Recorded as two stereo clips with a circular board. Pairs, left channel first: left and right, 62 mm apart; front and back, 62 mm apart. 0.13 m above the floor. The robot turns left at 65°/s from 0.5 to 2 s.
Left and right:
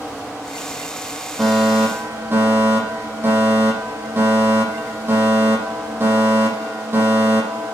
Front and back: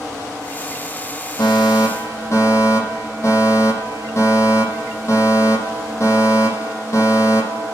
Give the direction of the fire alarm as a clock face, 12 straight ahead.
12 o'clock.